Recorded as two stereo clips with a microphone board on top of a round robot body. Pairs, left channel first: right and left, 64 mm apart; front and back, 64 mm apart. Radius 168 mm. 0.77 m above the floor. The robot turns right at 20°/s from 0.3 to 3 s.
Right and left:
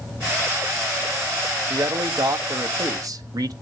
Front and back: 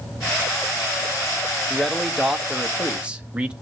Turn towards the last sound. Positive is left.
turn(degrees=105)